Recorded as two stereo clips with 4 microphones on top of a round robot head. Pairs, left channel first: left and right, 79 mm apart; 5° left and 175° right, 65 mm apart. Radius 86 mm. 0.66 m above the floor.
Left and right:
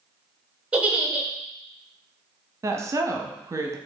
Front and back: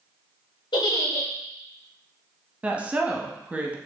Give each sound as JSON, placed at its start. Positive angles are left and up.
{"t": 0.7, "sound": "a giggle", "azimuth_deg": -15, "distance_m": 0.9}
{"t": 2.6, "sound": "a woman speaking", "azimuth_deg": -115, "distance_m": 0.8}